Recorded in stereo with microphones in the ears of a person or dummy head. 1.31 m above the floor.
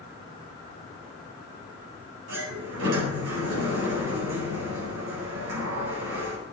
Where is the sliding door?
85° right, 8.5 m.